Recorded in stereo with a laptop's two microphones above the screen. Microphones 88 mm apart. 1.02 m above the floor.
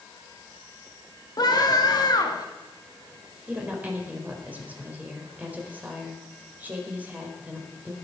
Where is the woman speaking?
15° right (ahead or behind), 4.5 m.